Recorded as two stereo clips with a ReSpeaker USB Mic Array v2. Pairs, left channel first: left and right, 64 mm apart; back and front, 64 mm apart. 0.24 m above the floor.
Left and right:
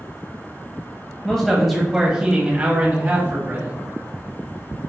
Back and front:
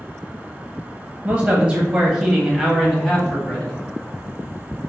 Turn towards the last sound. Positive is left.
turn(degrees=-105)